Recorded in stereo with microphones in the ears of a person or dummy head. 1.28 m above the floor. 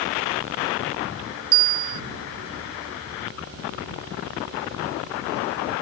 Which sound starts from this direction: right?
A bell, at 1.5 s.